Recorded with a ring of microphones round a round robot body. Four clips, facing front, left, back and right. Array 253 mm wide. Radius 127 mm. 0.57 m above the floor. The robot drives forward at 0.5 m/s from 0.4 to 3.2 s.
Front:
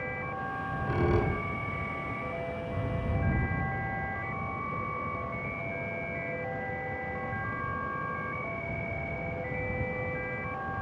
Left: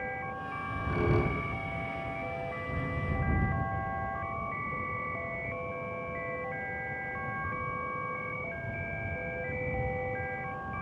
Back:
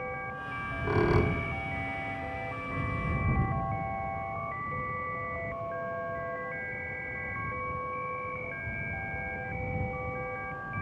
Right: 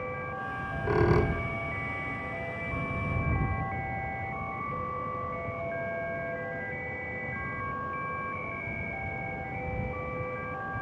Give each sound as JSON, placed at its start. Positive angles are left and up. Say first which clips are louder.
{"t": 0.5, "sound": "a squeak", "louder": "right 7 dB, back 4 dB", "azimuth_deg": -125, "distance_m": 1.9}